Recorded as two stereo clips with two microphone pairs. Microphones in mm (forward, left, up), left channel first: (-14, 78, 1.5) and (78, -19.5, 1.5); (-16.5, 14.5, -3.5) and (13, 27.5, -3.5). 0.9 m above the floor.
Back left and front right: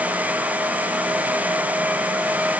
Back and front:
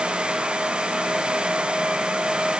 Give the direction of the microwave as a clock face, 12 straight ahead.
No microwave in this recording.